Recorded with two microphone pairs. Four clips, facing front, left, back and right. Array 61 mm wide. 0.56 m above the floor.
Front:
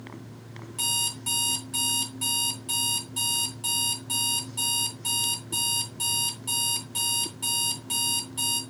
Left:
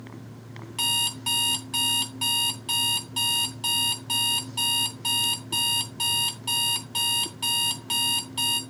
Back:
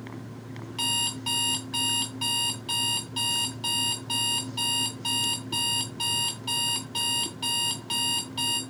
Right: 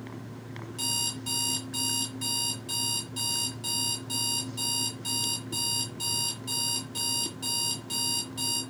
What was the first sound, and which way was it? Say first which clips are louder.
An alarm clock: left 9 dB, back 3 dB; 120° left.